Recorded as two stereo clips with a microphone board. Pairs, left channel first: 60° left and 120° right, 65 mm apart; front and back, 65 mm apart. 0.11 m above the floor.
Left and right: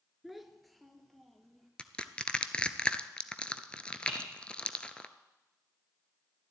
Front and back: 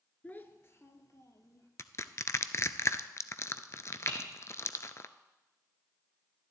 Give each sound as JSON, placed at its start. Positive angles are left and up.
{"t": 0.2, "sound": "a child speaking", "azimuth_deg": -35, "distance_m": 0.9}
{"t": 1.8, "sound": "crushing", "azimuth_deg": -5, "distance_m": 0.5}
{"t": 4.1, "sound": "typing on a keyboard", "azimuth_deg": 10, "distance_m": 3.5}